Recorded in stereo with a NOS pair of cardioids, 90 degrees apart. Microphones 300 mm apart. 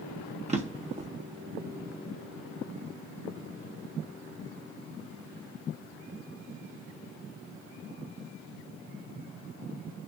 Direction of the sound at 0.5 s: 25° right.